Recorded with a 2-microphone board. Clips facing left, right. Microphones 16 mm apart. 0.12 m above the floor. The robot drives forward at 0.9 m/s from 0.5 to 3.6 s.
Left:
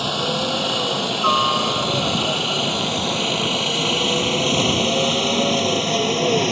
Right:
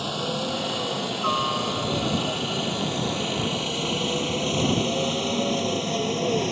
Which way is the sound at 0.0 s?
25° left (ahead or behind).